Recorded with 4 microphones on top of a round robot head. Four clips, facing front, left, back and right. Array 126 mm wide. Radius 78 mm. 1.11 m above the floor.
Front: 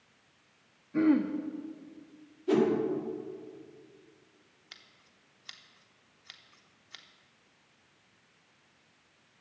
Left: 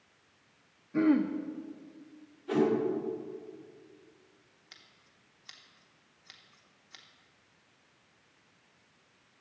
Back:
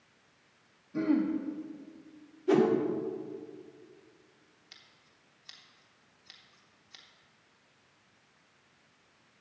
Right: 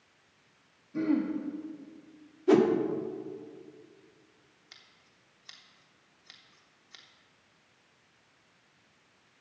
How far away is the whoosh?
About 1.4 m.